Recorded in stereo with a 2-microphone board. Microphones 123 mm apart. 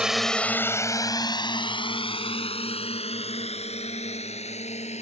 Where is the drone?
5° right (ahead or behind); by 5.0 s 60° left (ahead or behind).